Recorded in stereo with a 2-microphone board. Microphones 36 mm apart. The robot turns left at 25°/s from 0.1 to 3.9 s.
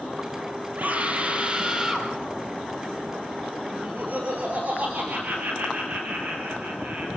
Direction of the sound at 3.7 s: 45° right (ahead or behind).